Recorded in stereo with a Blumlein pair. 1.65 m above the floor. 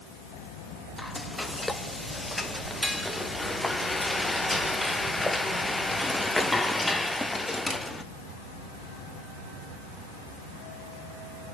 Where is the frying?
5° left, 1.5 m.